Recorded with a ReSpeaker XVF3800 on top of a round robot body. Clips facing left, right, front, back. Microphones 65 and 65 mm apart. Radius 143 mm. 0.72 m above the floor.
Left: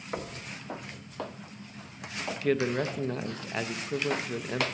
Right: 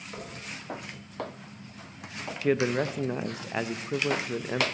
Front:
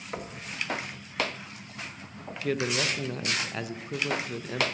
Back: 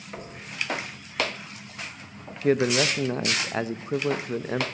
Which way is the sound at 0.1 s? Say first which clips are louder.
Left 6 dB, front 2 dB; 60° left.